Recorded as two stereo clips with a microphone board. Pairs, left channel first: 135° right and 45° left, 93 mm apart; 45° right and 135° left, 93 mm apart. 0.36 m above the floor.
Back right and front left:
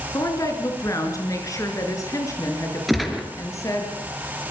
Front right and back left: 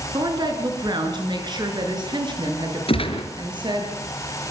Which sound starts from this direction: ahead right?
A gunshot, at 2.9 s.